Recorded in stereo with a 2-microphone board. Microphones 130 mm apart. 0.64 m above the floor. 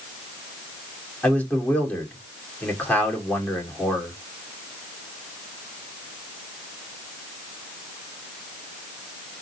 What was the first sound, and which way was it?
A man speaking, 10° left (ahead or behind).